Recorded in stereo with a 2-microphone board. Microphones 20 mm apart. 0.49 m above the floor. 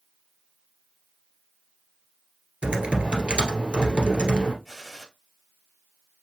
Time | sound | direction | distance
2.6 | typing on a keyboard | 65° right (ahead or behind) | 1.7 m
4.7 | a gunshot | 10° right (ahead or behind) | 1.8 m